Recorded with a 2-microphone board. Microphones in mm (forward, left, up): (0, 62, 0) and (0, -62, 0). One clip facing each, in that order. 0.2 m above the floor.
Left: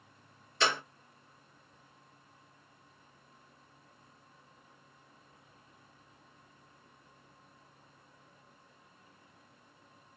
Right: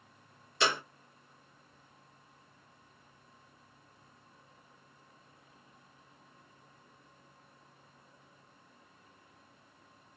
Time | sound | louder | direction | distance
0.6 | a clap | even | 20° right (ahead or behind) | 2.5 m